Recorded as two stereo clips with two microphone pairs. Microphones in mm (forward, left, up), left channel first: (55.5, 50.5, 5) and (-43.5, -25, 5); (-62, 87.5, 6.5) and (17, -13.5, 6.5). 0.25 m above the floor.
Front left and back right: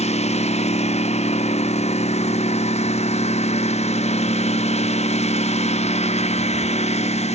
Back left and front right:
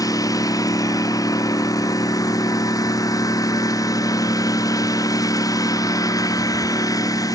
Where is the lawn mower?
65° left.